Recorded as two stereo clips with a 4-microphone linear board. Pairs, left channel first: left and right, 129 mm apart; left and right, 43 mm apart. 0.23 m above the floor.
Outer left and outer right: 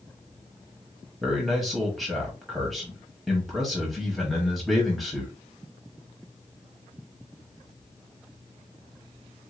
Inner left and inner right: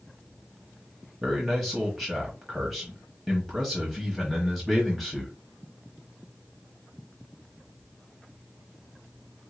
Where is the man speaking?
Centre (ahead or behind), 1.1 m.